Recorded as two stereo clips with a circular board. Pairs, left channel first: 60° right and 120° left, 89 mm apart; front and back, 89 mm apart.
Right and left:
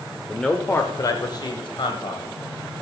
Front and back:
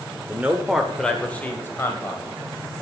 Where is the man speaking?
145° right, 1.2 m; by 2.2 s 55° right, 2.5 m.